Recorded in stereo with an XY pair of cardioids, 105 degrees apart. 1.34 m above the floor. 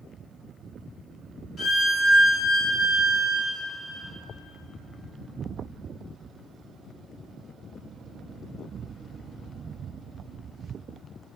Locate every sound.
1.6 s a violin: 55° left, 2.0 m